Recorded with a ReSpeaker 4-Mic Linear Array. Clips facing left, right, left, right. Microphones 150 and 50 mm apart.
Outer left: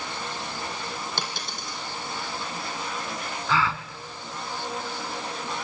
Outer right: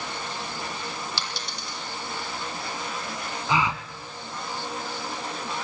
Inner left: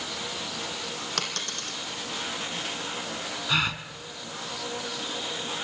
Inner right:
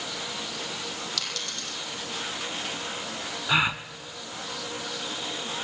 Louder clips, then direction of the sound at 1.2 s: Outer left 1 dB, inner left 2 dB; 50° left (ahead or behind).